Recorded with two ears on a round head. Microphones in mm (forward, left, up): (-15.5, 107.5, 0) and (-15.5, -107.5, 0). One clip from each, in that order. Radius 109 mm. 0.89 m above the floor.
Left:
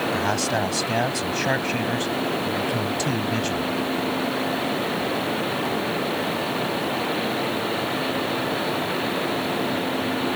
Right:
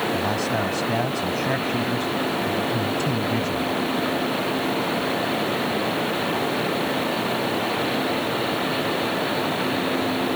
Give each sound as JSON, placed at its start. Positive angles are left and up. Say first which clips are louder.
{"t": 0.1, "sound": "a man speaking", "louder": "even", "side_deg": 35}